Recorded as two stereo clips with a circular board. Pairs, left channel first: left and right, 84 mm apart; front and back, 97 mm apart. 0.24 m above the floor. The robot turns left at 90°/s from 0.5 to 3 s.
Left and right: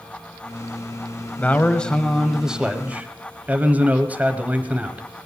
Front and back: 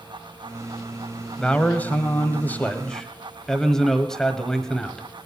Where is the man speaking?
70° left, 1.2 m; by 5.1 s 75° right, 1.2 m.